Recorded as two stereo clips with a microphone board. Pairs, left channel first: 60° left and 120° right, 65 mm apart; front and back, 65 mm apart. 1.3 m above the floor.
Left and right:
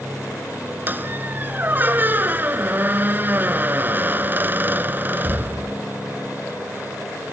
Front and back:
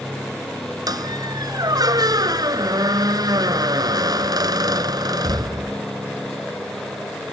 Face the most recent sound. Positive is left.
turn(degrees=180)